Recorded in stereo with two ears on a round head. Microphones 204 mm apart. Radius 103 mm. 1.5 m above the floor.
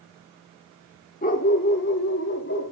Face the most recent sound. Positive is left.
turn(degrees=55)  # may be behind; listen again after turning